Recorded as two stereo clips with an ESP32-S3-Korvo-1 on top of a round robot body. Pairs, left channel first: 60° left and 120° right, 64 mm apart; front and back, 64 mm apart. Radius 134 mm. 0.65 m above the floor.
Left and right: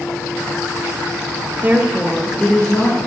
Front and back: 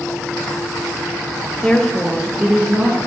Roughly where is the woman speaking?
Right.